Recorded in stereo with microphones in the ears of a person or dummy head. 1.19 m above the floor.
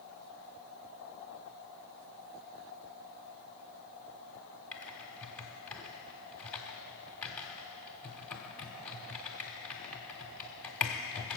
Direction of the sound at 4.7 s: 5° left (ahead or behind).